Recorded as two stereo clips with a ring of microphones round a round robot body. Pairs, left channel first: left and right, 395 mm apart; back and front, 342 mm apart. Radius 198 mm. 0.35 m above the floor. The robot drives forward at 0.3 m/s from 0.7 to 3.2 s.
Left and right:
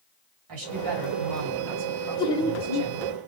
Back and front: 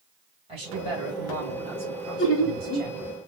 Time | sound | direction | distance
0.5 | a man speaking | 70° right | 2.5 m
2.2 | laughter | 160° left | 1.0 m